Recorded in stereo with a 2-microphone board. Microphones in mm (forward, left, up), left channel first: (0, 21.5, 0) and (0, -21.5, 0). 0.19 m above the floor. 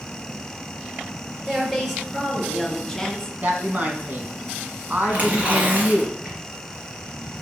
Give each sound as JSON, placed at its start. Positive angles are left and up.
{"t": 1.5, "sound": "a woman speaking", "side_deg": -5, "distance_m": 3.5}
{"t": 3.4, "sound": "a woman speaking", "side_deg": -40, "distance_m": 1.8}
{"t": 5.1, "sound": "tearing paper", "side_deg": -35, "distance_m": 3.5}